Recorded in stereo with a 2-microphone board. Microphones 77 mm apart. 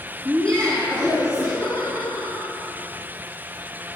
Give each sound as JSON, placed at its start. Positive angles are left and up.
{"t": 0.2, "sound": "laughter", "side_deg": 0, "distance_m": 2.0}